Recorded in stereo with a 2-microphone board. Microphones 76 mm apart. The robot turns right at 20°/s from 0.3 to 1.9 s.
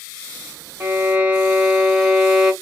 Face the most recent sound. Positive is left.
turn(degrees=-10)  # may be behind; listen again after turning